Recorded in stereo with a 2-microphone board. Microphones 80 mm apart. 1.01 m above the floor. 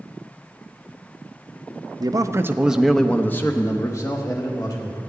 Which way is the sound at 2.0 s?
55° right (ahead or behind).